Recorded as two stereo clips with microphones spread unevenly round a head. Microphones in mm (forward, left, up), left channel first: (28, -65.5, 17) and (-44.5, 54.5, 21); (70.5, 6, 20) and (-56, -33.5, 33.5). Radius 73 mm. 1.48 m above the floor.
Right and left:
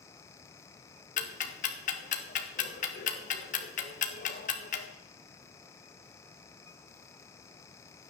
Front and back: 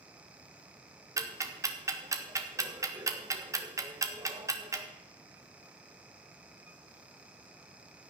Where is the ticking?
95° right, 1.6 m.